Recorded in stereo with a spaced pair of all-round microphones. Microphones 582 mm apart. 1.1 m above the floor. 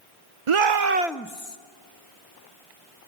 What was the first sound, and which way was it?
A shout, 60° right (ahead or behind).